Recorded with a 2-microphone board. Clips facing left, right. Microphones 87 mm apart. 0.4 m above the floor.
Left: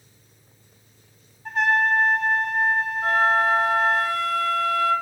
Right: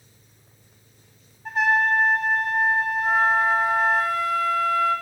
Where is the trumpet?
5° right (ahead or behind), 2.5 m.